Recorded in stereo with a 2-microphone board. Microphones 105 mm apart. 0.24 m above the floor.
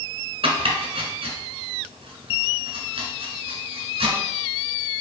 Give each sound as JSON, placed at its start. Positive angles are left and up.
{"t": 0.4, "sound": "chopping", "side_deg": -65, "distance_m": 1.2}